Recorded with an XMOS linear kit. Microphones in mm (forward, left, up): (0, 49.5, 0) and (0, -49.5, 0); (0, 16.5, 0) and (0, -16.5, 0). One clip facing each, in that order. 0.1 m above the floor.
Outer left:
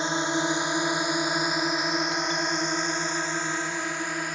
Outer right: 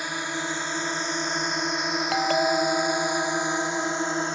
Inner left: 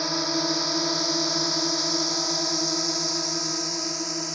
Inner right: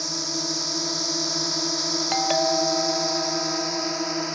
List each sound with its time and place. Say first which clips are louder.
0.0 s a drone: outer left 5 dB, inner left 4 dB; 25° left (ahead or behind); by 4.4 s 25° right (ahead or behind)
2.1 s a doorbell: outer right 6 dB, inner right 6 dB; 80° right